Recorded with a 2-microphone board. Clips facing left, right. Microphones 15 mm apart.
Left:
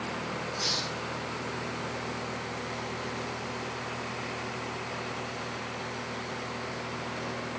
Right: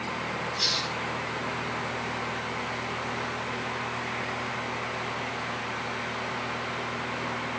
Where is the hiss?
70° right (ahead or behind), 2 m.